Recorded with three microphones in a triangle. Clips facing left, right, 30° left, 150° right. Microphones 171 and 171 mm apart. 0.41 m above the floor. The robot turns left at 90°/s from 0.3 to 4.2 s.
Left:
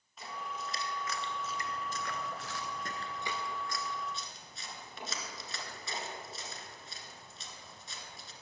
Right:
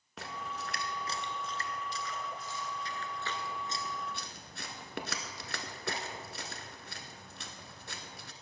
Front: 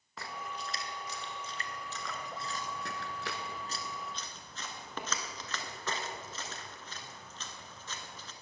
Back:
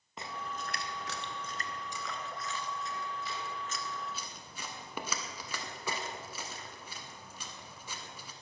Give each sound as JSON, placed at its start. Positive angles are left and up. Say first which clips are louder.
{"t": 0.2, "sound": "a splash", "louder": "right 1 dB, back 1 dB", "azimuth_deg": -80, "distance_m": 1.2}